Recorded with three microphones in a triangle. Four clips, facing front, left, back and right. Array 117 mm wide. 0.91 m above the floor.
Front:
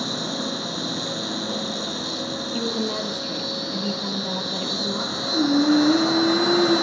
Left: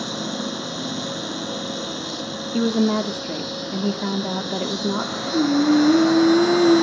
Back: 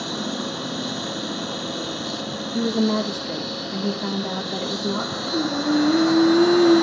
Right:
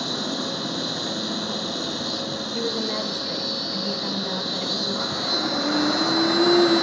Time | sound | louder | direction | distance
0.0 | an insect | left 1 dB, even | 140° right | 1.6 m
2.5 | a woman speaking | left 9 dB, back 7 dB | 105° left | 2 m
5.3 | singing | left 9 dB, front 4 dB | 70° left | 9 m